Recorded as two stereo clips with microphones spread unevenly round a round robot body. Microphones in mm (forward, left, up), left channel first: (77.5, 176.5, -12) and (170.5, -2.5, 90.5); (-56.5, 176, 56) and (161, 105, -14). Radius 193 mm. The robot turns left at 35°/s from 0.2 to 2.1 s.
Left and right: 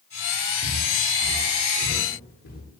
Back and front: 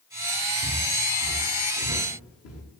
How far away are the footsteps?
About 7.5 m.